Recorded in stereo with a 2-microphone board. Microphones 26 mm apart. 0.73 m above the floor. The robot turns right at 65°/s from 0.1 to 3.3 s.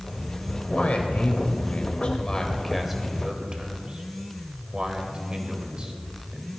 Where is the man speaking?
35° left (ahead or behind), 2.5 m; by 6.5 s 40° right (ahead or behind), 2.5 m.